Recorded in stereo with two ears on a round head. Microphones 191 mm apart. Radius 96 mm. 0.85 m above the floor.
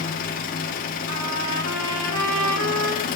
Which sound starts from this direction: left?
An engine running, at 0.0 s.